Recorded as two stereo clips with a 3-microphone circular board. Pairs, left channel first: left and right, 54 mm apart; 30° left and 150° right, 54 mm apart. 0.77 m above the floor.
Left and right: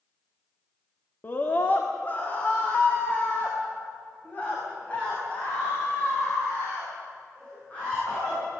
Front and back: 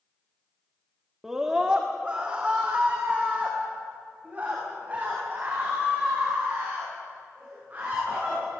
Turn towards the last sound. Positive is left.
turn(degrees=155)